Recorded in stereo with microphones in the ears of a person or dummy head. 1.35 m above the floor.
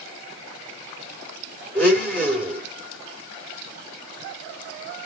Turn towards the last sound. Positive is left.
turn(degrees=15)  # may be behind; listen again after turning